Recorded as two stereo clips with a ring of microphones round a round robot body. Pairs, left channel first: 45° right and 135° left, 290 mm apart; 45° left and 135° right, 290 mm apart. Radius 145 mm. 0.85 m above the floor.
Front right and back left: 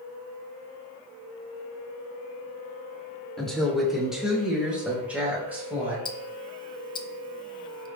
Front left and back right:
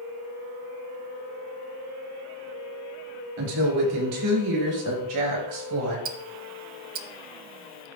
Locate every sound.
3.4 s a woman speaking: 135° right, 2.5 m; by 6.0 s 140° right, 4.5 m
6.0 s ticking: 105° right, 0.5 m